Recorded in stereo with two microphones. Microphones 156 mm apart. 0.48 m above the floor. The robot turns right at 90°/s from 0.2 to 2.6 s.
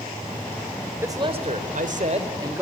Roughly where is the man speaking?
Behind.